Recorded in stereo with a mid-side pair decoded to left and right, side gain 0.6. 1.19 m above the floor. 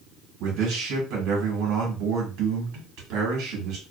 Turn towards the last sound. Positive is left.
turn(degrees=-70)